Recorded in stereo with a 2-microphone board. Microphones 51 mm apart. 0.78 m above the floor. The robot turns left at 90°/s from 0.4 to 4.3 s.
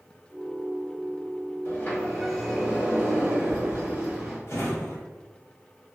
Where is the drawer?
55° left (ahead or behind), 1.1 m.